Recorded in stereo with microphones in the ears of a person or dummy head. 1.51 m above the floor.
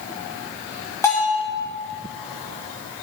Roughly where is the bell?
Left.